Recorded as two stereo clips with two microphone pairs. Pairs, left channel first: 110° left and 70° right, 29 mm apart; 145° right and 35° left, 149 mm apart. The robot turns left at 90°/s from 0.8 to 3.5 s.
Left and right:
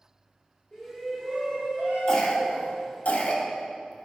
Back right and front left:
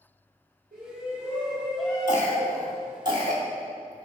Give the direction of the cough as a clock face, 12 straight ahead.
6 o'clock.